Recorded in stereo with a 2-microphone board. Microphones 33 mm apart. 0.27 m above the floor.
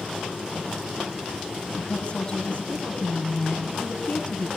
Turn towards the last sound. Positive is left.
turn(degrees=40)  # may be behind; listen again after turning